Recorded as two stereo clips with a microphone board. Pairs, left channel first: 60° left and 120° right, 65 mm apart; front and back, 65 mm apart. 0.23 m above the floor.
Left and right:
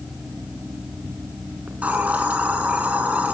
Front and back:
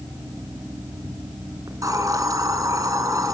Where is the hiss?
175° left, 3 m.